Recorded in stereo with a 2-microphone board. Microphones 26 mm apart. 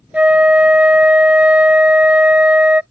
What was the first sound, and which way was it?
A flute, 85° right.